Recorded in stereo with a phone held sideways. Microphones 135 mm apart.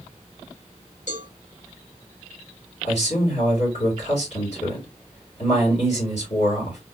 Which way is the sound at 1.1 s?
65° left (ahead or behind).